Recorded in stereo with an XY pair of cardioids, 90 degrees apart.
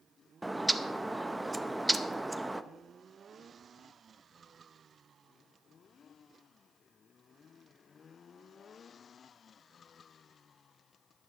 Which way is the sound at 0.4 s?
15° right.